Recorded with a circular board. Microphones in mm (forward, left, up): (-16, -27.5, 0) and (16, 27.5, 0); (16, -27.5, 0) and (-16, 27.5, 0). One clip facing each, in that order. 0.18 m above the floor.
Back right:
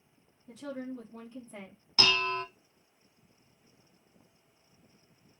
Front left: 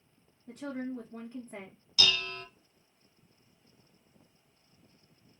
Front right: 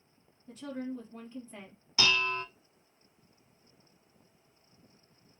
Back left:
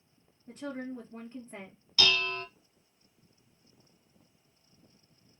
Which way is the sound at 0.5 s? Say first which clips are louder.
Front left 2 dB, even; 75° left.